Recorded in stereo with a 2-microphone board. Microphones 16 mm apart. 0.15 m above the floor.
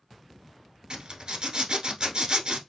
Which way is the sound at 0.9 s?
55° right (ahead or behind).